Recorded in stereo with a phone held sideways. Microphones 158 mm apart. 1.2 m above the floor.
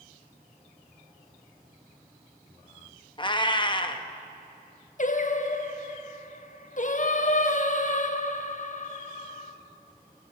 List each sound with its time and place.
3.2 s a cat meowing: 30° left (ahead or behind), 0.6 m
5.0 s singing: 55° left (ahead or behind), 0.6 m